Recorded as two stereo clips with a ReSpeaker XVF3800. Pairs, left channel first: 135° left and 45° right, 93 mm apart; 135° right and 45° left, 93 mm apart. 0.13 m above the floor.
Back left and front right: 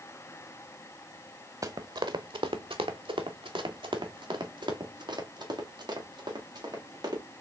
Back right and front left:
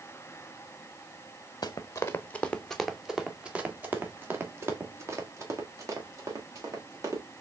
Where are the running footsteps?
90° right, 0.7 m; by 7.2 s 5° right, 3 m.